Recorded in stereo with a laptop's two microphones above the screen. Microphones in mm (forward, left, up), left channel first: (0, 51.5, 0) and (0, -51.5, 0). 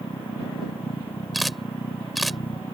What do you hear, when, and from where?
0.0 s a machine running: 60° left (ahead or behind)
1.3 s a camera shutter: centre (ahead or behind)